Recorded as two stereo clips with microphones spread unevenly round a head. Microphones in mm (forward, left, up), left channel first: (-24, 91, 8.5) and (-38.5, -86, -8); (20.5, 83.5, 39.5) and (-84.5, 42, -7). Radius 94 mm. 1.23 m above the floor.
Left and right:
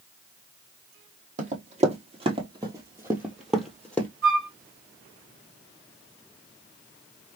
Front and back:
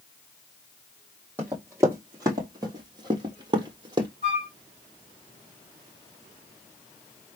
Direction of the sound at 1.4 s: 60° right.